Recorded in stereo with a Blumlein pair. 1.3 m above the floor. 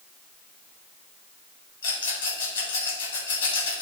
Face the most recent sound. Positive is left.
turn(degrees=65)